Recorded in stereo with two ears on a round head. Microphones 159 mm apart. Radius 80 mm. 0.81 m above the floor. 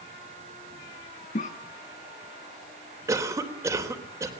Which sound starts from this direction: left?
A cough, at 1.4 s.